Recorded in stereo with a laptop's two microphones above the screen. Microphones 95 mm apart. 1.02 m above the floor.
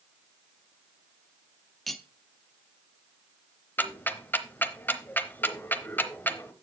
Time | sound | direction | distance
1.9 | cutlery clinking | centre (ahead or behind) | 0.8 m
3.8 | ticking | 20° left (ahead or behind) | 0.8 m